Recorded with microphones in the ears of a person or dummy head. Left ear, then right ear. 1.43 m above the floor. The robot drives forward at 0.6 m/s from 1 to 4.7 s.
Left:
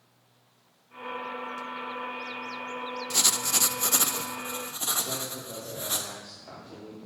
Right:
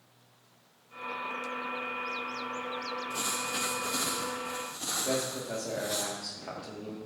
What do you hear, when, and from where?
3.1 s writing: 70° left (ahead or behind), 0.6 m; by 6.0 s 35° left (ahead or behind), 0.9 m
5.0 s a man speaking: 70° right (ahead or behind), 1.7 m